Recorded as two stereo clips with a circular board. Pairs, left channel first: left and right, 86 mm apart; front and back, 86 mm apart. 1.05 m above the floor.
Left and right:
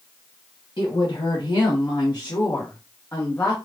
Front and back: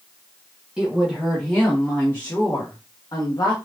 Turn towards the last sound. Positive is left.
turn(degrees=25)